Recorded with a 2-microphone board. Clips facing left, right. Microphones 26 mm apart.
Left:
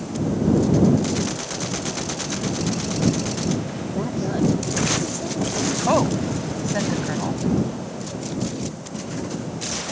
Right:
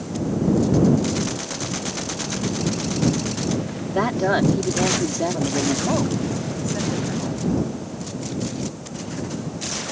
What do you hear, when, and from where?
3.9 s a woman speaking: 60° right (ahead or behind)
5.9 s a woman speaking: 30° left (ahead or behind)